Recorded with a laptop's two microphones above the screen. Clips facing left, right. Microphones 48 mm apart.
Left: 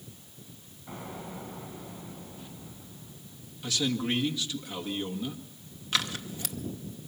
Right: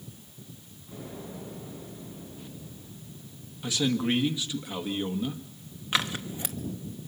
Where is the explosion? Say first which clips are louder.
Left 1 dB; 65° left (ahead or behind), 8 m.